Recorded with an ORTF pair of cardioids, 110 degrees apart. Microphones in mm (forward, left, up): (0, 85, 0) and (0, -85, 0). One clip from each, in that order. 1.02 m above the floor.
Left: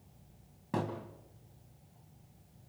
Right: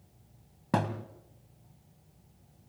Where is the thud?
55° right, 2.5 m.